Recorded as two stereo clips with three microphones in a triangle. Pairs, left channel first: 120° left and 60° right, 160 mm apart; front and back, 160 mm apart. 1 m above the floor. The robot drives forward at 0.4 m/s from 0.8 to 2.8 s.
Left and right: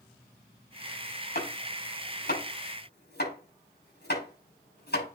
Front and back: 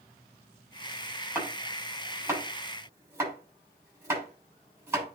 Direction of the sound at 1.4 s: 105° left.